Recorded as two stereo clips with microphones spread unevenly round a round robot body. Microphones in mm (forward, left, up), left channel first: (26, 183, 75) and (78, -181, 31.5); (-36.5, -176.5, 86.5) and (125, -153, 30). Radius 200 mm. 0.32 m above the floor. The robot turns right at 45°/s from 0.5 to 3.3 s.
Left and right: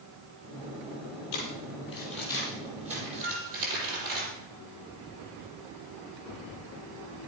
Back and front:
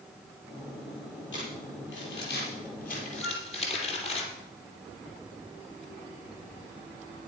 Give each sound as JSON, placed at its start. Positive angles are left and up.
{"t": 1.3, "sound": "crumpling", "azimuth_deg": 150, "distance_m": 5.0}
{"t": 3.2, "sound": "a flute", "azimuth_deg": -70, "distance_m": 6.0}